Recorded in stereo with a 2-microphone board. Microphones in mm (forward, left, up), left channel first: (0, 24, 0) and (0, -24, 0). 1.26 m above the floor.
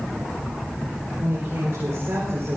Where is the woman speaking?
60° right (ahead or behind), 5.5 m; by 2.6 s 75° right (ahead or behind), 4.5 m.